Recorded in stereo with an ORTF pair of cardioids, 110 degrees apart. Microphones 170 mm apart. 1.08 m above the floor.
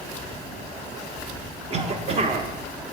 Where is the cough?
40° right, 0.8 m.